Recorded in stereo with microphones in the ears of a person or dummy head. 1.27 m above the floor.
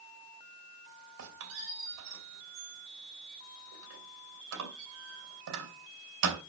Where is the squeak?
75° right (ahead or behind), 3 m.